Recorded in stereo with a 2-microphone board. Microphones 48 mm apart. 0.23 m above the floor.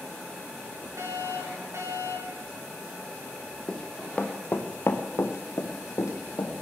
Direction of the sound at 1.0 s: 70° right (ahead or behind).